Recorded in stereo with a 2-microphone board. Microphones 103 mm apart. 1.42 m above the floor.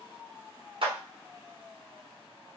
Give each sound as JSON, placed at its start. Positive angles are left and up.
{"t": 0.8, "sound": "a clap", "side_deg": -60, "distance_m": 1.0}